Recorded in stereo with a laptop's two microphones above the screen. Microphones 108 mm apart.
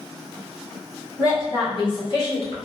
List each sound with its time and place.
1.2 s a woman speaking: 30° left (ahead or behind), 1.3 m; by 2.6 s 65° left (ahead or behind), 1.3 m